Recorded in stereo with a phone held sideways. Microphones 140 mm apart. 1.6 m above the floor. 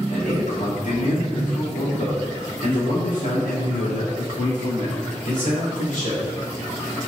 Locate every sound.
0.1 s a man speaking: 85° left, 4.5 m; by 6.2 s 75° left (ahead or behind), 8.5 m